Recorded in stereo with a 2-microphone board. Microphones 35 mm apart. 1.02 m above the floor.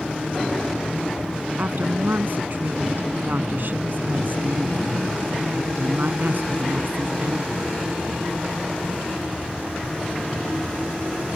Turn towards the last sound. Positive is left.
turn(degrees=-55)  # may be behind; listen again after turning